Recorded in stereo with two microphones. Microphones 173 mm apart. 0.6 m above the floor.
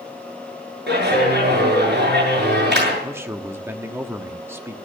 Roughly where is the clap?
Right.